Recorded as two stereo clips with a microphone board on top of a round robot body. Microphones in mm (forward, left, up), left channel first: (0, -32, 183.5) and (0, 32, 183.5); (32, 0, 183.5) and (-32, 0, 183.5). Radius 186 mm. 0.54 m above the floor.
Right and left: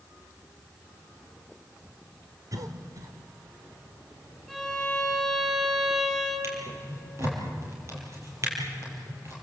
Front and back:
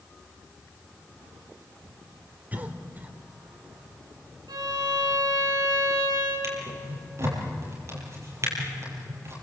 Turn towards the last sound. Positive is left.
turn(degrees=135)